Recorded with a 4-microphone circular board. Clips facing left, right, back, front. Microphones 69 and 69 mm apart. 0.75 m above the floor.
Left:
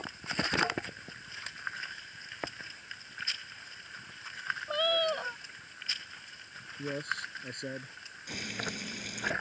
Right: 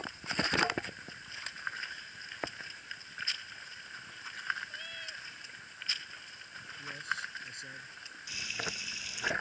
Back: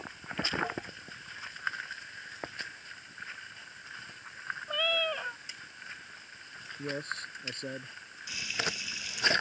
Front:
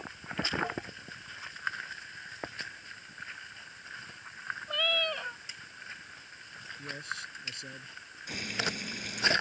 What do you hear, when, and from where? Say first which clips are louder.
4.7 s a cat meowing: left 15 dB, back 1 dB; 95° left
6.8 s a man speaking: left 3 dB, back 4 dB; 130° left
8.3 s frying: left 2 dB, front 1 dB; 50° left